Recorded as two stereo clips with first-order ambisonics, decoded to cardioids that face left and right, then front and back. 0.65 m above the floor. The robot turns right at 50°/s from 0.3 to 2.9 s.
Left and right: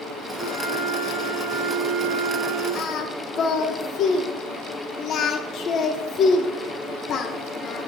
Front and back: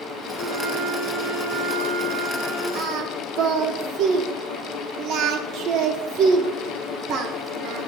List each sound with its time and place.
0.4 s a flute: 110° left, 2.5 m; by 2.6 s 135° right, 2.5 m
2.8 s singing: 135° left, 0.7 m; by 7.9 s 140° left, 0.7 m